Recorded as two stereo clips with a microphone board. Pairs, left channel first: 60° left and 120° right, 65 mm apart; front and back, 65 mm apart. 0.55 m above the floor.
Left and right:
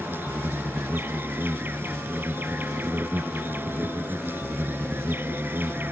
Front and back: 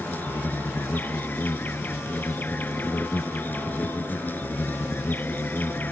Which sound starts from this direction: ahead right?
An insect, at 0.0 s.